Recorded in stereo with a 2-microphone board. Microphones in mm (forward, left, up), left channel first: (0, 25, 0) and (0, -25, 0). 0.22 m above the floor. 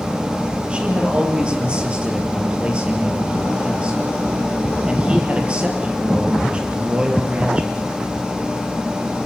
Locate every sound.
0.7 s a man speaking: 20° right (ahead or behind), 5 m